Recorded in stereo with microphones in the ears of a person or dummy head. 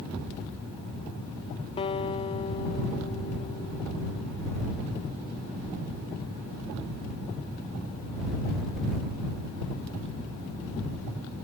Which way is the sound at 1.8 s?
30° left (ahead or behind).